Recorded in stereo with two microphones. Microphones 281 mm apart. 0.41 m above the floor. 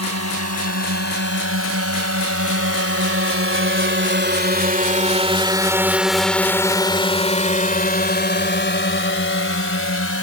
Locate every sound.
0.0 s a drone: 70° right (ahead or behind); by 10.2 s 55° left (ahead or behind)